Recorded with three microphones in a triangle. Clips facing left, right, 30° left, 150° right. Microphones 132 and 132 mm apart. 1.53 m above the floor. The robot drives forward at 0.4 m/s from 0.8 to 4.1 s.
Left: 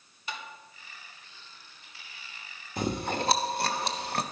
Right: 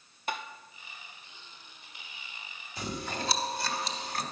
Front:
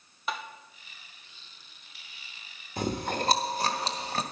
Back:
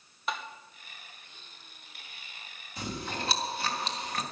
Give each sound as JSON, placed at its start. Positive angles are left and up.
{"t": 0.3, "sound": "tapping", "azimuth_deg": -60, "distance_m": 1.0}
{"t": 2.8, "sound": "chewing", "azimuth_deg": 60, "distance_m": 1.5}